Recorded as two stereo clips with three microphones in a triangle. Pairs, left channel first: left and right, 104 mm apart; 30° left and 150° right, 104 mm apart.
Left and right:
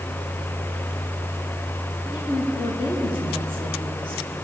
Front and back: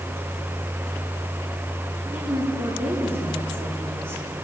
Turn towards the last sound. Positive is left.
turn(degrees=135)